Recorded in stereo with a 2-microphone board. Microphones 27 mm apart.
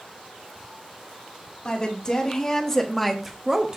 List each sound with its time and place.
1.6 s a woman speaking: 30° left (ahead or behind), 2 m; by 3.8 s 30° right (ahead or behind), 0.9 m